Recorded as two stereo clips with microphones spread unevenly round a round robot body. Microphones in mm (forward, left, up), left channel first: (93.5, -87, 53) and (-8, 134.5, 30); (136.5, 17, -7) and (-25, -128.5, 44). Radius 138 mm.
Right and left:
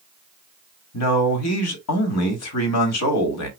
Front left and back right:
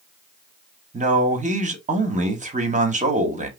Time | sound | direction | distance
0.9 | a man speaking | 75° right | 1.7 m